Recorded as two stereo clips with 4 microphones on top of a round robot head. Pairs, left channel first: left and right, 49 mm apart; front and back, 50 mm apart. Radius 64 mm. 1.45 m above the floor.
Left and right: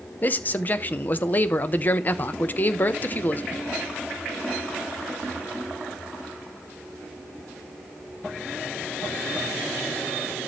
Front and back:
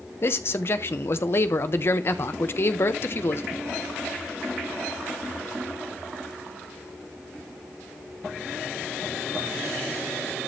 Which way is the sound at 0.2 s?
40° left.